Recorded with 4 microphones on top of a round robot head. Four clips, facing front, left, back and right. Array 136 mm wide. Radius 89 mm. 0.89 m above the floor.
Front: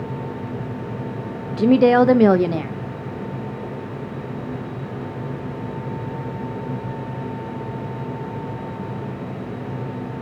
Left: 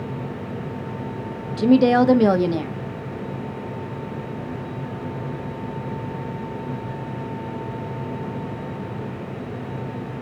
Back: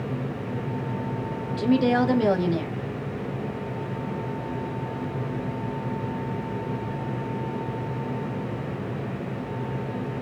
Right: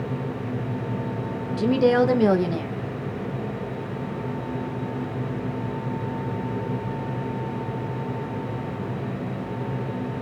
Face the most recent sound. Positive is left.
turn(degrees=15)